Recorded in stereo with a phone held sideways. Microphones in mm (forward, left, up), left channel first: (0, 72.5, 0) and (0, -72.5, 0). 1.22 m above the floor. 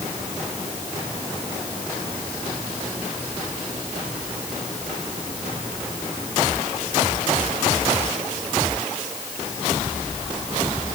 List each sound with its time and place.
Only background noise.